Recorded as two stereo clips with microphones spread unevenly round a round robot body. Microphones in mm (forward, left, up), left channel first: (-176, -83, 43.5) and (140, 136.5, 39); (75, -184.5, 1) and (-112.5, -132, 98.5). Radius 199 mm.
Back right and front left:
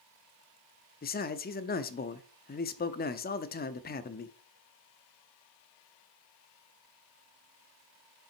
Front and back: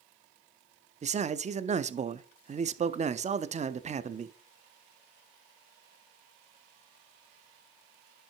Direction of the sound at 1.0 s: 115° right.